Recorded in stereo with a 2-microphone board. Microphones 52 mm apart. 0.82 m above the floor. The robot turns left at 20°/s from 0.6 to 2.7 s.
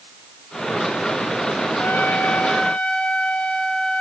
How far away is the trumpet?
About 1.5 m.